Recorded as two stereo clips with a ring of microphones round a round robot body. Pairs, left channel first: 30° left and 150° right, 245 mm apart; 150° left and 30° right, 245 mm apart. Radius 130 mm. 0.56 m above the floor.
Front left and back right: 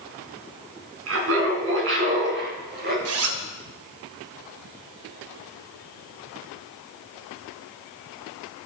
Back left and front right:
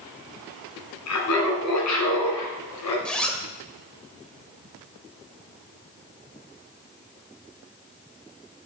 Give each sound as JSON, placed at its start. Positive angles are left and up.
{"t": 1.1, "sound": "laughter", "azimuth_deg": 175, "distance_m": 5.0}
{"t": 3.0, "sound": "a zipper", "azimuth_deg": -125, "distance_m": 1.7}